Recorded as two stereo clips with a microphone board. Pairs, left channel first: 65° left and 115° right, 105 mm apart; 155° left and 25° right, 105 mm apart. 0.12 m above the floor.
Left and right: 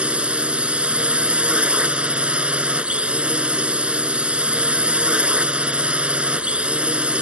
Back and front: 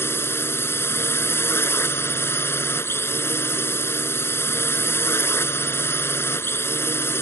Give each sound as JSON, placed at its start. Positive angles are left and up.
{"t": 0.0, "sound": "a drone", "azimuth_deg": -175}